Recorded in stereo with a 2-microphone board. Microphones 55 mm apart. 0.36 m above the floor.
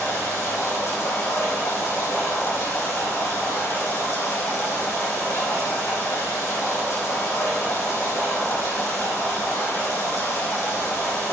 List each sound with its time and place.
0.0 s running water: 80° left, 9.5 m